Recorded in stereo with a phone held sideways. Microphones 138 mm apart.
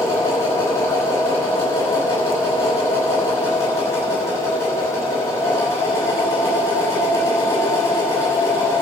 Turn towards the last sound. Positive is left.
turn(degrees=20)  # may be behind; listen again after turning